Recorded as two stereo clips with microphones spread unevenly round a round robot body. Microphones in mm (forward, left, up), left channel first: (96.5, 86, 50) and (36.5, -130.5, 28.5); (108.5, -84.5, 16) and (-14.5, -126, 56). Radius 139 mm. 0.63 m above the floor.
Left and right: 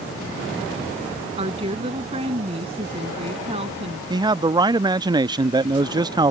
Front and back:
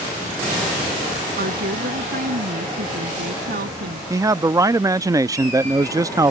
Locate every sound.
1.4 s a woman speaking: 175° right
4.1 s a man speaking: 85° right